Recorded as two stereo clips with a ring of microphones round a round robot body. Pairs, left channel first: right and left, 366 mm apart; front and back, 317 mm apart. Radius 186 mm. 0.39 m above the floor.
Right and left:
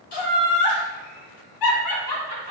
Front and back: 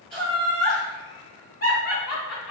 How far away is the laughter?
About 2 m.